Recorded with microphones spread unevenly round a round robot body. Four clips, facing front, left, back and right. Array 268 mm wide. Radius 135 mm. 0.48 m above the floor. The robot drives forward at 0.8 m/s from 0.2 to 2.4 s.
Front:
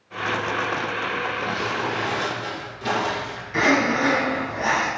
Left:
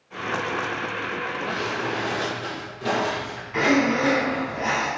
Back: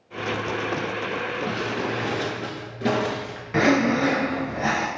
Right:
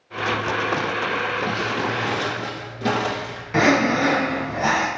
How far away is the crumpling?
About 1.7 m.